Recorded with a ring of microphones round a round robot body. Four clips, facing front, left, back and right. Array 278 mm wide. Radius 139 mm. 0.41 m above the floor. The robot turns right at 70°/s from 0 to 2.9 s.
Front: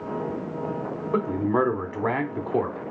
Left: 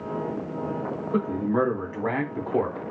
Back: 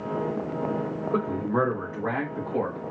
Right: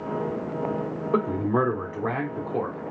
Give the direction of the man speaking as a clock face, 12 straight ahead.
2 o'clock.